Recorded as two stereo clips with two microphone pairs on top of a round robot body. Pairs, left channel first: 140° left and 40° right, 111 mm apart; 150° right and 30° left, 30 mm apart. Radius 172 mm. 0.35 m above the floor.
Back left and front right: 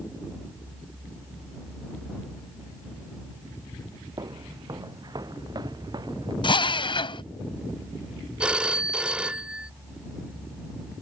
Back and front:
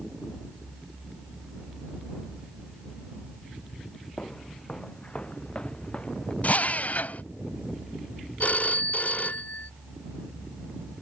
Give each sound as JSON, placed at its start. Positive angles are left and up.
{"t": 4.2, "sound": "footsteps", "azimuth_deg": -95}
{"t": 6.4, "sound": "a drill", "azimuth_deg": 175}
{"t": 8.4, "sound": "a phone ringing", "azimuth_deg": -125}